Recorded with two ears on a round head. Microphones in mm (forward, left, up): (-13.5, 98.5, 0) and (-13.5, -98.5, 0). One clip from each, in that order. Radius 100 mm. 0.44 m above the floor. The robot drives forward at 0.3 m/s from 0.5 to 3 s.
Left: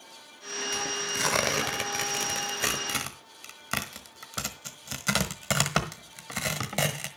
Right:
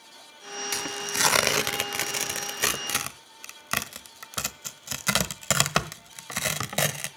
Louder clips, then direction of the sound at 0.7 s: Right 2 dB; 40° right (ahead or behind).